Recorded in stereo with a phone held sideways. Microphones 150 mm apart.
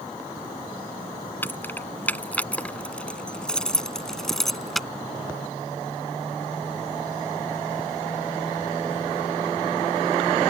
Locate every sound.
1.4 s keys jangling: 15° left (ahead or behind); by 4.9 s centre (ahead or behind)